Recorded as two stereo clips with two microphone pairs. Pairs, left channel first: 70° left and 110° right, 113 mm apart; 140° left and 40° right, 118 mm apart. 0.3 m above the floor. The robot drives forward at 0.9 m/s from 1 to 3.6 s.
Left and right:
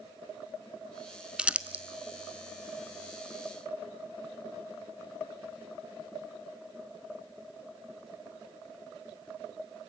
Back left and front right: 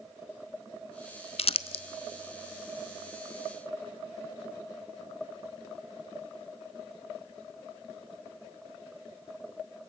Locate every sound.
1.4 s crumpling: 170° left, 0.7 m; by 1.8 s 175° left, 1.1 m